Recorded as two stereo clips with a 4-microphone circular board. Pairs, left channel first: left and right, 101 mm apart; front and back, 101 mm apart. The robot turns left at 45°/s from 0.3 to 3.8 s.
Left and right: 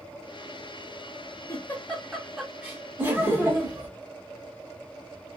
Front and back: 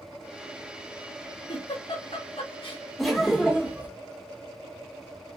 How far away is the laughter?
About 0.8 m.